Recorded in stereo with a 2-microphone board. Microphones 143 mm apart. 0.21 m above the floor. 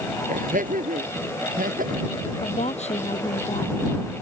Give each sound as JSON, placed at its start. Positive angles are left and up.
{"t": 0.3, "sound": "laughter", "side_deg": -70}
{"t": 2.4, "sound": "a woman speaking", "side_deg": 50}